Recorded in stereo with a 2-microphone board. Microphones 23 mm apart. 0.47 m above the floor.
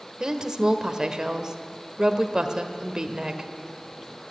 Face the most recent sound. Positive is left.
turn(degrees=-30)  # may be behind; listen again after turning